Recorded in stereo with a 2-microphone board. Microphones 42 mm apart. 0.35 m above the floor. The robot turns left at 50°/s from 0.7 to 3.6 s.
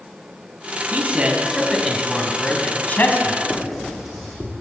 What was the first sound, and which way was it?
A man speaking, 130° right.